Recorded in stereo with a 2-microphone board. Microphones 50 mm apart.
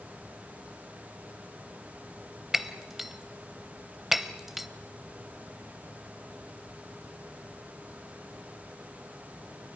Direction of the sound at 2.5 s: 5° right (ahead or behind).